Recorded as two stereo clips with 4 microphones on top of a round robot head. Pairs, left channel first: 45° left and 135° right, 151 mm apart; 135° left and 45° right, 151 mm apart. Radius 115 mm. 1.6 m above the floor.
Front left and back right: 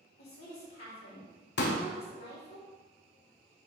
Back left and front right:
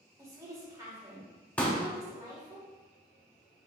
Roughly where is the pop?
Ahead left.